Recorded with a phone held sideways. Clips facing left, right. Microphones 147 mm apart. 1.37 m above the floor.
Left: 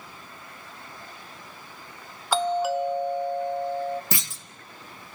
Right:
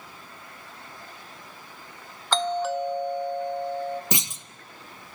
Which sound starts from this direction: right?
A clunk, at 4.1 s.